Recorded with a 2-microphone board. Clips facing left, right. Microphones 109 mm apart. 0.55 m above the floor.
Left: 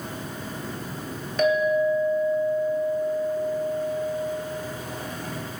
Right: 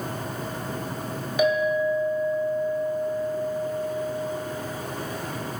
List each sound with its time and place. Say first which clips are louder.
1.4 s a clink: left 1 dB; 10° right (ahead or behind), 2.0 m